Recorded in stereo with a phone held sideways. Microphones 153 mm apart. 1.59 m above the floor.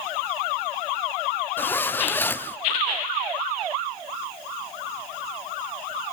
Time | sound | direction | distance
1.6 | a zipper | 15° left (ahead or behind) | 0.6 m